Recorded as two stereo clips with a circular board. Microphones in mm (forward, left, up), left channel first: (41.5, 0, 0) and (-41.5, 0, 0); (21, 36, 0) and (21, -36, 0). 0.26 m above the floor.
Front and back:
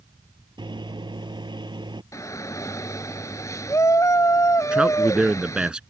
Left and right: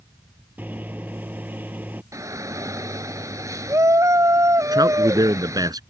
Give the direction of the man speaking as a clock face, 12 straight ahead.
3 o'clock.